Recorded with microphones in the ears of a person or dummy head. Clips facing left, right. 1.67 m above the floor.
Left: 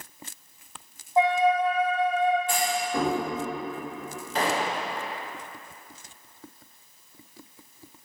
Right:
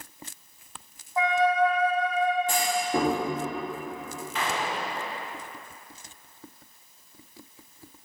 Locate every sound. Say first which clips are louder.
1.2 s a flute: left 1 dB; 20° left (ahead or behind), 0.9 m
2.5 s a clunk: right 1 dB; 25° right (ahead or behind), 3.5 m
4.3 s a gunshot: left 4 dB; 30° left (ahead or behind), 0.8 m